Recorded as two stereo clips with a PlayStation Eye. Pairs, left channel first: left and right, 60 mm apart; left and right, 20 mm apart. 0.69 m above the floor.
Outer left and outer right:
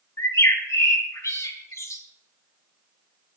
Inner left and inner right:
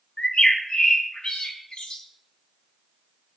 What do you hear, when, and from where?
0.2 s a bird: 55° left (ahead or behind), 3 m